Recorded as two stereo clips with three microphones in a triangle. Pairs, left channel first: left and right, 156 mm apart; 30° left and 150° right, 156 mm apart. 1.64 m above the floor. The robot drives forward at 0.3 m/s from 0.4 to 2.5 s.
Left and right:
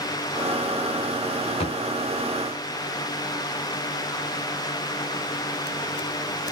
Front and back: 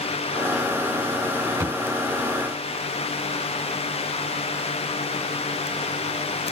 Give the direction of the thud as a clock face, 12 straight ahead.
7 o'clock.